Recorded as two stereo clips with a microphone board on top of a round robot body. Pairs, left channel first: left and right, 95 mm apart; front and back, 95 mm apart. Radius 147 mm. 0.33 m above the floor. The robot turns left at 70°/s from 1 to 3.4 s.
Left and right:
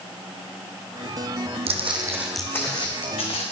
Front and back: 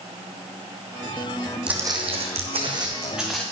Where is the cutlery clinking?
No cutlery clinking in this recording.